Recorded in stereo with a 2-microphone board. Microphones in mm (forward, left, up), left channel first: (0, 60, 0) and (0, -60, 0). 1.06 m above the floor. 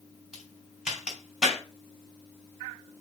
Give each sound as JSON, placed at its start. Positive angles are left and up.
{"t": 0.3, "sound": "a crack", "side_deg": -5, "distance_m": 3.0}